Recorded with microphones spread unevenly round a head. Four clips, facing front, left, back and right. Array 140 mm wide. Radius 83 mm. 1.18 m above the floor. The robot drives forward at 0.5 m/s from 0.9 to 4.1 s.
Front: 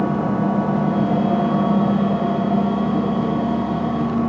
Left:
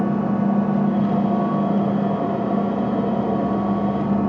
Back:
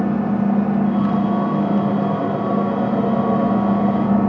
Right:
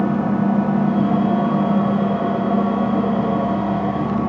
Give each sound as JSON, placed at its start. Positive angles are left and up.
{"t": 0.0, "sound": "an engine running", "azimuth_deg": 55, "distance_m": 1.6}